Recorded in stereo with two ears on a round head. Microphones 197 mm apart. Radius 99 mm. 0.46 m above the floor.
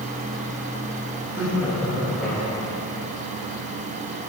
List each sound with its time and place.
1.3 s laughter: 10° right (ahead or behind), 6 m; by 2.8 s 5° left (ahead or behind), 5.5 m